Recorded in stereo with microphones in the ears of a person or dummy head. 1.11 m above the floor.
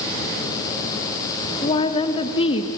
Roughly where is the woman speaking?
Left.